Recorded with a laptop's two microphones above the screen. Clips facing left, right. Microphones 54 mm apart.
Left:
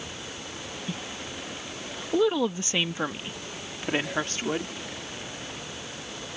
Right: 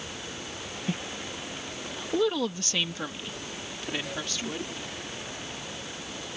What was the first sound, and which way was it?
A woman speaking, 40° right (ahead or behind).